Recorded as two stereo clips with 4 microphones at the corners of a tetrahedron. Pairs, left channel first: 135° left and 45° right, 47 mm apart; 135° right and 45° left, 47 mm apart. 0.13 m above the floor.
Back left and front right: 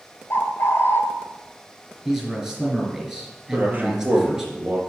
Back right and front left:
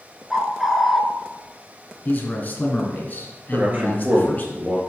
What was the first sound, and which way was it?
A bird, 130° left.